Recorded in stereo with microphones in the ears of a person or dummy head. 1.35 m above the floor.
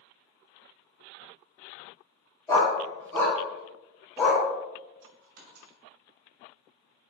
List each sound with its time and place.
2.5 s a dog barking: 20° left (ahead or behind), 1.1 m; by 4.4 s centre (ahead or behind), 2 m
5.0 s a dropped coin: 55° right (ahead or behind), 1.4 m